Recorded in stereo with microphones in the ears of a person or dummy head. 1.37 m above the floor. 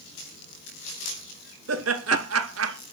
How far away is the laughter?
About 2 m.